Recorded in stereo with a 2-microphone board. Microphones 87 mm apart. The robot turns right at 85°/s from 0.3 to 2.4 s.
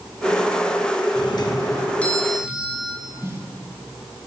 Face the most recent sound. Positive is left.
turn(degrees=-30)  # may be behind; listen again after turning